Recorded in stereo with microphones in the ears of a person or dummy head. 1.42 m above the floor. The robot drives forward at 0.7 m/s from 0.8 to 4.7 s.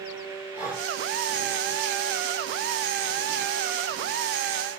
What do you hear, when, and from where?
0.5 s breathing: 15° right (ahead or behind), 4 m